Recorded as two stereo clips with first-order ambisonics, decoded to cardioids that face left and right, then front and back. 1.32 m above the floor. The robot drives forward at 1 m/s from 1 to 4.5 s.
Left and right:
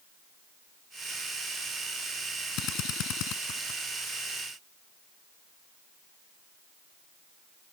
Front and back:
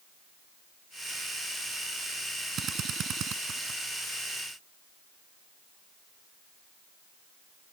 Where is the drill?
125° left; by 3.8 s 130° left.